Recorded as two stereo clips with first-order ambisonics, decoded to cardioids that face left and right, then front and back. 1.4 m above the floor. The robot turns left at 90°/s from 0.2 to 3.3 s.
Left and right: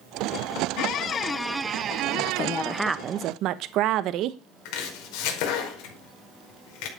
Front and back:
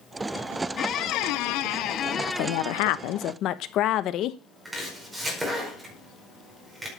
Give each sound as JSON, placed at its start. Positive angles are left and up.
{"t": 0.8, "sound": "a squeak", "azimuth_deg": 65, "distance_m": 0.5}
{"t": 2.1, "sound": "a woman speaking", "azimuth_deg": 55, "distance_m": 1.0}
{"t": 4.7, "sound": "chopping", "azimuth_deg": 100, "distance_m": 5.0}